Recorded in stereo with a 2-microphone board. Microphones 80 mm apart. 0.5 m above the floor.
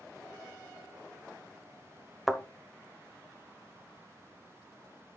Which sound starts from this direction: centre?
A thud, at 2.3 s.